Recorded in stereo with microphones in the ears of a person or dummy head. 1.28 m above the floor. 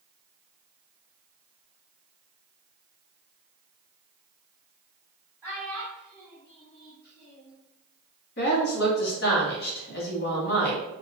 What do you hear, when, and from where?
5.4 s a child speaking: 5° right (ahead or behind), 0.9 m; by 7.6 s 65° left (ahead or behind), 1.0 m
8.4 s a woman speaking: 60° left (ahead or behind), 1.5 m